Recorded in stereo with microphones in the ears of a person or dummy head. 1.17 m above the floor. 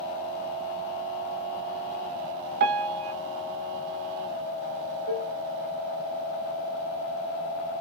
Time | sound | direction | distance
2.6 | a piano | 50° right (ahead or behind) | 0.9 m
5.1 | dishes clattering | 35° left (ahead or behind) | 1.5 m